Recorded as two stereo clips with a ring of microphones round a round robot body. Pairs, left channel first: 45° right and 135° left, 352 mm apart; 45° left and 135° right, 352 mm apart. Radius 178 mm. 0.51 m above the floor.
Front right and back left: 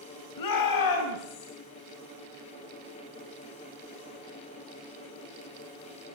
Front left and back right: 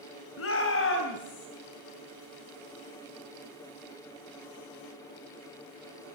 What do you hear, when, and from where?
0.4 s a shout: 10° right, 3 m; by 1.5 s 15° right, 5 m